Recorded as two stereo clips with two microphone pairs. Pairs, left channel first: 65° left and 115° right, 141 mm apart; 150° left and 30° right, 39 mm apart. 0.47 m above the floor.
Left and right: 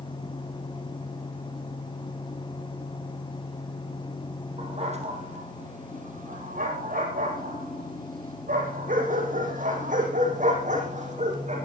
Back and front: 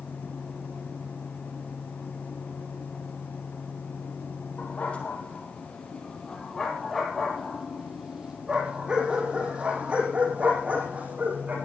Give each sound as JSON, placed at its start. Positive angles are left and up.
{"t": 4.6, "sound": "a dog barking", "azimuth_deg": -160, "distance_m": 4.0}